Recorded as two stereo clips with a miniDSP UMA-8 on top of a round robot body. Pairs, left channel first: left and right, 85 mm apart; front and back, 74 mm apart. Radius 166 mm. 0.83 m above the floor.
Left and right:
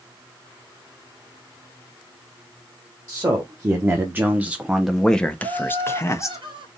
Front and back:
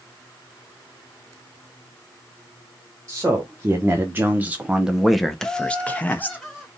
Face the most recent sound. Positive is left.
turn(degrees=-90)